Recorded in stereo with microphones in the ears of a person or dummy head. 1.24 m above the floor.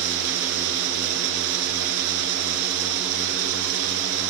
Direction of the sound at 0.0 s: 65° right (ahead or behind).